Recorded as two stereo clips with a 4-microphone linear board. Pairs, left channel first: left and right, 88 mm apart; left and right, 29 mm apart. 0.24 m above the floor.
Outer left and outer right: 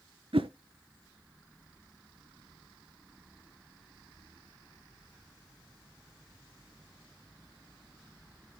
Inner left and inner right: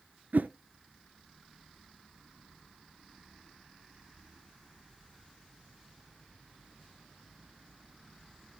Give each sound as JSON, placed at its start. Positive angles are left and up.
{"t": 0.3, "sound": "a whoosh", "side_deg": -80, "distance_m": 0.6}